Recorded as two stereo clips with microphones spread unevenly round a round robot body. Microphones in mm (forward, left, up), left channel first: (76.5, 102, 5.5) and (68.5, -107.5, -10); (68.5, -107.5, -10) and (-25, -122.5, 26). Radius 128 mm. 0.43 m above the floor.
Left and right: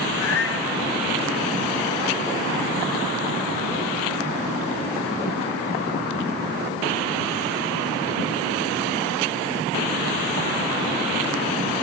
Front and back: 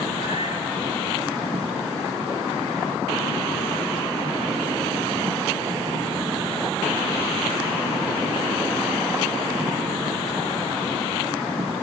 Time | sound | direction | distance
0.1 | a cat meowing | 80° left | 1.6 m